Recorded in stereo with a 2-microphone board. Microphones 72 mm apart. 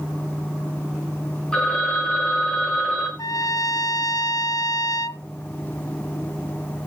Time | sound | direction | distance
1.5 | a phone ringing | 15° left (ahead or behind) | 3.5 m
3.2 | a trumpet | 60° left (ahead or behind) | 0.6 m